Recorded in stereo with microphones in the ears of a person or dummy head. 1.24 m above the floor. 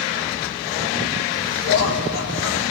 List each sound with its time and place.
1.6 s laughter: 80° left, 2 m